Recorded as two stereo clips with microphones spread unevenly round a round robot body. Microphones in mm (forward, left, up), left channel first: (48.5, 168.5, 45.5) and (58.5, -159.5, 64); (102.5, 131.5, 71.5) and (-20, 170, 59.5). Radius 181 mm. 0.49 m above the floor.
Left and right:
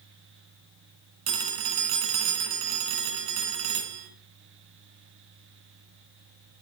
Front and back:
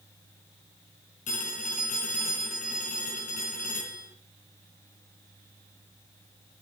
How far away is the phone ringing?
About 3 m.